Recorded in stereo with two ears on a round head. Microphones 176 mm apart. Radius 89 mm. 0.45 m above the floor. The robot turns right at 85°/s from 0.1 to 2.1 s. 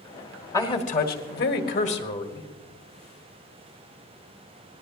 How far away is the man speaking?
About 1.7 m.